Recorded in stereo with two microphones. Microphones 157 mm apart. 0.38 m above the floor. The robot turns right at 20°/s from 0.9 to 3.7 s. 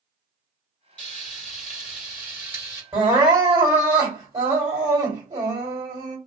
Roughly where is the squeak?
I don't hear a squeak.